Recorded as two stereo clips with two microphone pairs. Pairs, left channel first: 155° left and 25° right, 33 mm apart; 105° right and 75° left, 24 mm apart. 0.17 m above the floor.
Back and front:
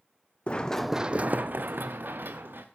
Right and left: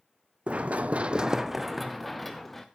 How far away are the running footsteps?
About 0.8 m.